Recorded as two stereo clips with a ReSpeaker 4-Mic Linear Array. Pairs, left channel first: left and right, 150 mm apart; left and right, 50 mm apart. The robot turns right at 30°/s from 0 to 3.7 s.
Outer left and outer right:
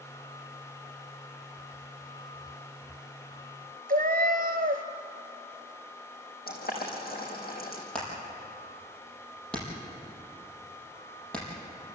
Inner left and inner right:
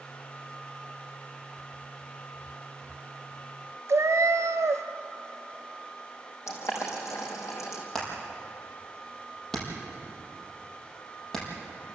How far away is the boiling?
About 5 m.